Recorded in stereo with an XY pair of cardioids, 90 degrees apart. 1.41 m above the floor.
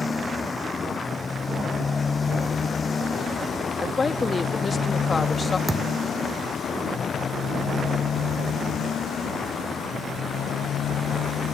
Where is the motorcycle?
30° left; by 11.6 s 75° left.